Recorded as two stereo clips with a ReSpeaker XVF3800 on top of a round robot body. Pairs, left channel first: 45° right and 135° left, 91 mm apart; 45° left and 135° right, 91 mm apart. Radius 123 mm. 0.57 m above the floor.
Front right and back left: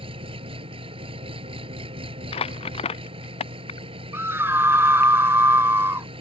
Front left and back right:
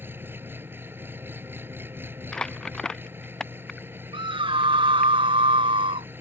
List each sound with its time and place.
0.0 s an engine running: 160° left
2.3 s crumpling: 40° right
4.1 s a scream: 160° right